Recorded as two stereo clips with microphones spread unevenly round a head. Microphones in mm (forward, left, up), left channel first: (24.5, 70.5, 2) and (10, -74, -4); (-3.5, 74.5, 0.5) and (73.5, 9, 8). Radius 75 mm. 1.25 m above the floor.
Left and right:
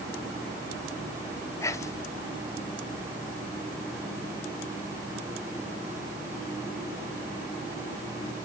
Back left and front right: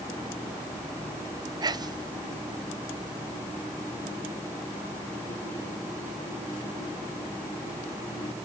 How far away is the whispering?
About 0.6 m.